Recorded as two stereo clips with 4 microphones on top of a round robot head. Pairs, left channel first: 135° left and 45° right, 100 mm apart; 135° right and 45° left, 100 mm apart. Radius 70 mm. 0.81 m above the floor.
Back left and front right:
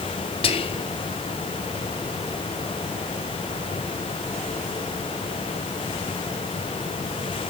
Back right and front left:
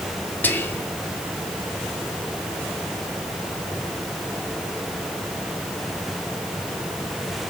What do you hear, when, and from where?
0.4 s whispering: 155° left, 1.6 m